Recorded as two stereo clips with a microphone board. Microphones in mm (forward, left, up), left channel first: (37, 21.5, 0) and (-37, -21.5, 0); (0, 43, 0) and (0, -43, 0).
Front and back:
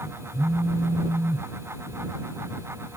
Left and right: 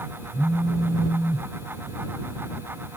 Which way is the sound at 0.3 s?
Straight behind.